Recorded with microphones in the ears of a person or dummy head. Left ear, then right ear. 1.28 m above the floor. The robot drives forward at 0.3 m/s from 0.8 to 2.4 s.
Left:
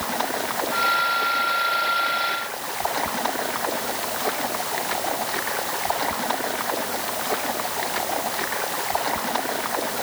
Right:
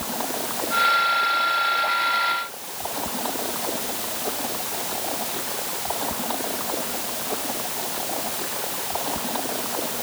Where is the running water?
65° left (ahead or behind).